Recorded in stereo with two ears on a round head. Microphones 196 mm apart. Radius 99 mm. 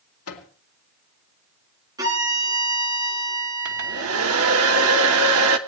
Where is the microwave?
75° left (ahead or behind), 2 m.